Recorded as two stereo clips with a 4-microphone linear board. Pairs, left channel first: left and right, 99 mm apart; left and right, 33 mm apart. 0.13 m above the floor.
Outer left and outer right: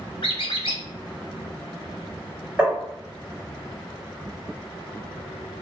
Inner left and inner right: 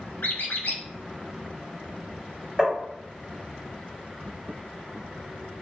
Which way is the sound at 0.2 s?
65° left (ahead or behind).